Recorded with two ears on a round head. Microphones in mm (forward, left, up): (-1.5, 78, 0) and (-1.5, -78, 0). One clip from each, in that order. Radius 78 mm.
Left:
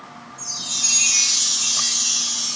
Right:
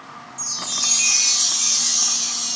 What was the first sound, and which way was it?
A chime, 40° right (ahead or behind).